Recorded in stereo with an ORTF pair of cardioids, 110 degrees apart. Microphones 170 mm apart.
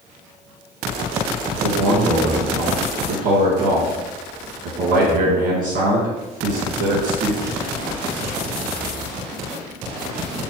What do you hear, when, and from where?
1.5 s a man speaking: 65° right, 1.4 m